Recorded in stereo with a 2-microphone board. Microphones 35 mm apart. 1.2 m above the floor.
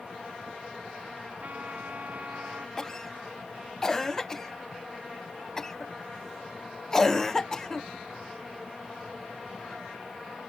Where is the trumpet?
55° right (ahead or behind).